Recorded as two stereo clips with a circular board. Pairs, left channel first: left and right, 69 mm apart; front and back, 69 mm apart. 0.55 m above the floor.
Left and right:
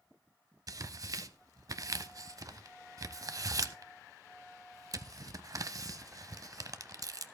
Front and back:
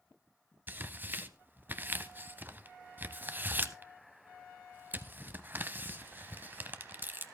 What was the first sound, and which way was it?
Tearing paper, 120° right.